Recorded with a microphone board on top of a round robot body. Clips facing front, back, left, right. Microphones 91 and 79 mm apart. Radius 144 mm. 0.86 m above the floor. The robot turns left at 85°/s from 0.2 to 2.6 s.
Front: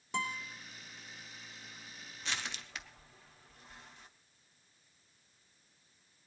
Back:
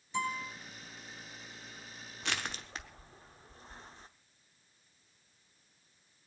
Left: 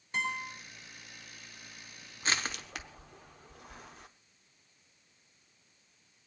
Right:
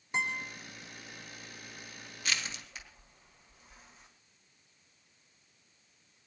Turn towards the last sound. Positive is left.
turn(degrees=120)